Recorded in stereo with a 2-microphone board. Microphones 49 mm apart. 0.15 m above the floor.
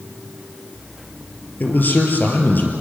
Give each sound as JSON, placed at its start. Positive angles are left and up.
{"t": 1.6, "sound": "a man speaking", "side_deg": 35, "distance_m": 3.5}